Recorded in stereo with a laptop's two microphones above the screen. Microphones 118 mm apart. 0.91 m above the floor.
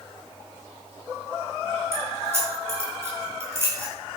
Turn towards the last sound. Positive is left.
turn(degrees=-20)  # may be behind; listen again after turning